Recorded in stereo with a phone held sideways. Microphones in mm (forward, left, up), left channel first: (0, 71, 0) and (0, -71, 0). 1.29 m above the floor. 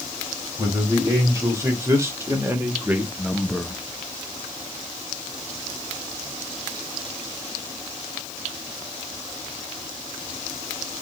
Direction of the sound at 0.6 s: 25° right (ahead or behind).